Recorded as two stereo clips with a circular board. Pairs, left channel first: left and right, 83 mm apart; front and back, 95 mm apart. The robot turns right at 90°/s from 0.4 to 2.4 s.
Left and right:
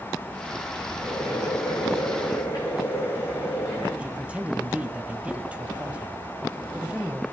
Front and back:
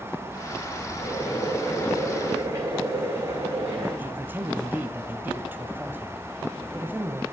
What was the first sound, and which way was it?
Boiling, straight ahead.